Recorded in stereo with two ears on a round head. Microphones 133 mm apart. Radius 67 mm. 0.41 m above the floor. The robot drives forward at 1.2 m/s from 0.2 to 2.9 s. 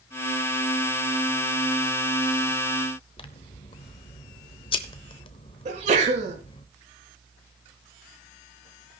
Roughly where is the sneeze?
Right.